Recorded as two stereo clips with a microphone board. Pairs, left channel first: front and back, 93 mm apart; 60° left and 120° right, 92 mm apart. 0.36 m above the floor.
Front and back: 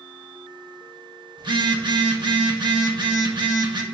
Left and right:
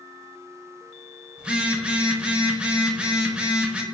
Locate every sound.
1.4 s a phone buzzing: 165° left, 0.5 m